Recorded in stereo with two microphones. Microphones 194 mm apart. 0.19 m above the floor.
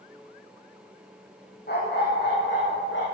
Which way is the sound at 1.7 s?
55° left (ahead or behind).